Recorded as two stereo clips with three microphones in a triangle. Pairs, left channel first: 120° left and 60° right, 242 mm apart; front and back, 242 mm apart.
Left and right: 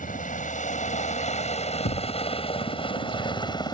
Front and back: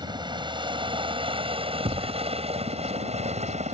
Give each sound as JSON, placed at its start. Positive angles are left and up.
{"t": 0.0, "sound": "a helicopter", "azimuth_deg": 125}
{"t": 1.9, "sound": "a thud", "azimuth_deg": 120}